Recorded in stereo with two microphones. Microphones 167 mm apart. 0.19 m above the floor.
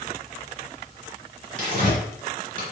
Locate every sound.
1.6 s tearing paper: 55° right (ahead or behind), 2.5 m